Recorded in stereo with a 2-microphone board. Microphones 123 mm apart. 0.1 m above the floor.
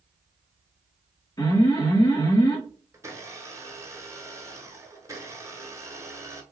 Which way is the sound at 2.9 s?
25° right (ahead or behind).